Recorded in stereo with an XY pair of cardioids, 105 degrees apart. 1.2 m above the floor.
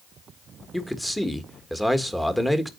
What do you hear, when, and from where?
0.7 s a man speaking: 5° left, 1.6 m